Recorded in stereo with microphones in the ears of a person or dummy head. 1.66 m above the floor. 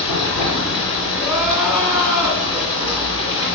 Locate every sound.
0.0 s running water: 55° left (ahead or behind), 3 m
1.2 s crying: centre (ahead or behind), 1.7 m